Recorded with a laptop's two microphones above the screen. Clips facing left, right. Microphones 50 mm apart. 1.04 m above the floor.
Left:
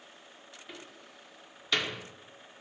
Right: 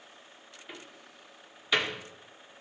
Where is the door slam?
10° right (ahead or behind), 2 m.